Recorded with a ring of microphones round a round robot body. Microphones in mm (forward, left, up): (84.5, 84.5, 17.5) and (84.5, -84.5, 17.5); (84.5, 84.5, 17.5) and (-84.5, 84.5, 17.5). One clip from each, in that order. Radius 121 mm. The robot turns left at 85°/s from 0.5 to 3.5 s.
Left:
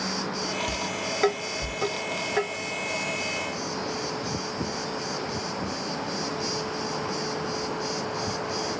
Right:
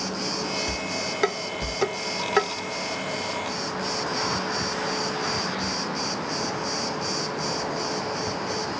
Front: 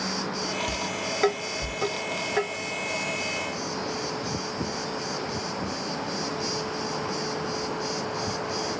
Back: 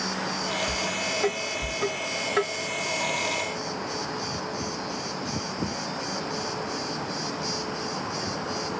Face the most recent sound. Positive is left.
turn(degrees=165)